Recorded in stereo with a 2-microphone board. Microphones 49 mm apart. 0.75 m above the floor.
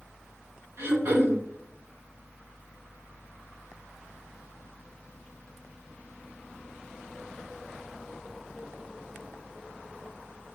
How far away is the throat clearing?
About 1.7 m.